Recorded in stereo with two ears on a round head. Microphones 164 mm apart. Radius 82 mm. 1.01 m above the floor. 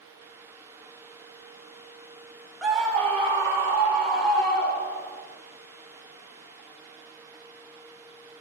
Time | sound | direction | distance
2.6 | a scream | 5° right (ahead or behind) | 0.6 m